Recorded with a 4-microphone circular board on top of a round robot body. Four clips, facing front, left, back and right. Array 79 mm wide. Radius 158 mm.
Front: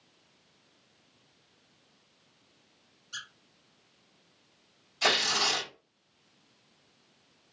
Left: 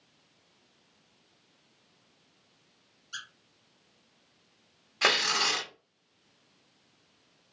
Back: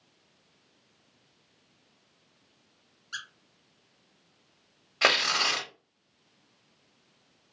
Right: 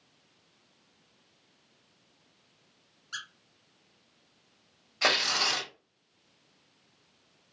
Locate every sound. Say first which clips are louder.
3.1 s a squeak: right 2 dB, back 4 dB; 130° right, 1.4 m
5.0 s tearing paper: left 1 dB, back 3 dB; 175° left, 1.9 m